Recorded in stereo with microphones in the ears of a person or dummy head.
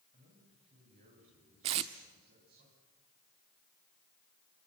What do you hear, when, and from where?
0.1 s a man speaking: 40° right (ahead or behind), 9 m; by 2.6 s 55° right (ahead or behind), 10.5 m
1.6 s tape being pulled: 25° right (ahead or behind), 1.0 m